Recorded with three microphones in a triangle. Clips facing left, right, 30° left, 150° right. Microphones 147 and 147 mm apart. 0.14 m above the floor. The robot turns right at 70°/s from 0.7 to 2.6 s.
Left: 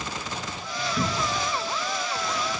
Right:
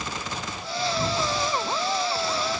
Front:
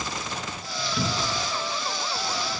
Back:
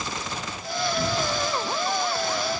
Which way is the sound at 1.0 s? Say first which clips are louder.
Even, even; 75° left.